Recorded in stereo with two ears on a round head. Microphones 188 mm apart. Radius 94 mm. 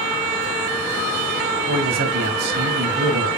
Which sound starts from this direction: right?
A man speaking, at 1.7 s.